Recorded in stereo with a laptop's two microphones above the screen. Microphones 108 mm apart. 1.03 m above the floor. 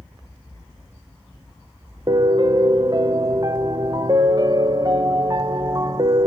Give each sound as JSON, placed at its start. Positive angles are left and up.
{"t": 2.1, "sound": "a piano", "side_deg": -40, "distance_m": 1.0}